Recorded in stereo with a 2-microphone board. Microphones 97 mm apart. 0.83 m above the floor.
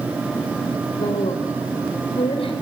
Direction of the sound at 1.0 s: 80° left.